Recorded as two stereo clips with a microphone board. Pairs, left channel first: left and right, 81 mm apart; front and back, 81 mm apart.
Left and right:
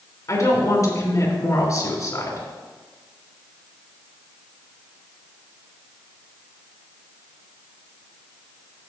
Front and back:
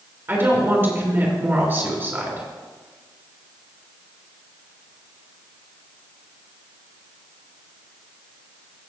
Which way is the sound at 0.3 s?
125° left.